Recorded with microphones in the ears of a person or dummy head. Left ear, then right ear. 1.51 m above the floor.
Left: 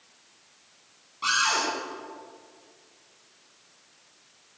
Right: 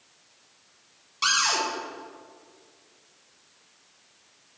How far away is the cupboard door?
About 3.5 m.